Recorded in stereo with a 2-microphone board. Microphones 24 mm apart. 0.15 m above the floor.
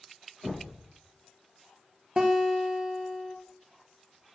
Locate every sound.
0.4 s knocking: 30° left (ahead or behind), 4.5 m
2.2 s a guitar: 25° right (ahead or behind), 1.7 m